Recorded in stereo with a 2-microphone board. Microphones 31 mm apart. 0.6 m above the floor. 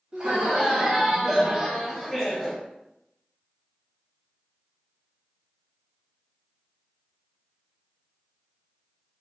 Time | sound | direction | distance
0.1 | laughter | 30° right (ahead or behind) | 1.4 m